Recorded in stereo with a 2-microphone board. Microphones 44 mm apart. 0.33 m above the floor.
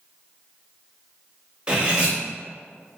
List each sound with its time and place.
1.7 s cutlery clinking: 25° right (ahead or behind), 0.7 m